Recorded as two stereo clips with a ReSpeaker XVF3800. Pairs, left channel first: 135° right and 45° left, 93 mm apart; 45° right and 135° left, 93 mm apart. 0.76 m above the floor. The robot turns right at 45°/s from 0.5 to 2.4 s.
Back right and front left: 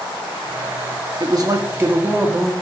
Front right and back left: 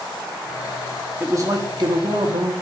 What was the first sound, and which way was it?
A man speaking, 80° left.